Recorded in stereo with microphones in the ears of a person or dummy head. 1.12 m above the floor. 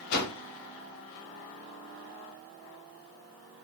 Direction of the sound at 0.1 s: 55° left (ahead or behind).